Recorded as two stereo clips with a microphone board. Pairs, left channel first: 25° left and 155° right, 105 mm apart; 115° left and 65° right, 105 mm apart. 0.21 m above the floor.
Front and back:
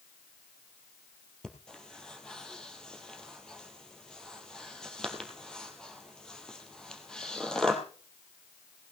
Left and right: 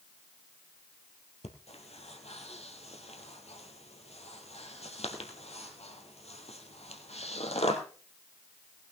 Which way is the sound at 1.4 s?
105° left.